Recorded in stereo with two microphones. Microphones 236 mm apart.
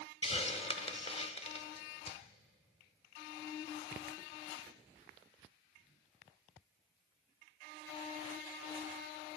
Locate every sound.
0.2 s a hiss: 25° left (ahead or behind), 0.8 m